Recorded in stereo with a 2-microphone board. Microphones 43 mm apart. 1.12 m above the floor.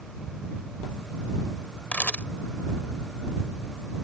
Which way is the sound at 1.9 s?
40° left (ahead or behind).